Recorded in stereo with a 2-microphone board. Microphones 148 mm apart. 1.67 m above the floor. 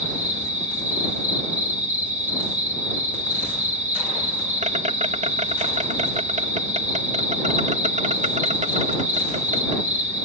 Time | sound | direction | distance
0.0 | an insect | 55° right (ahead or behind) | ?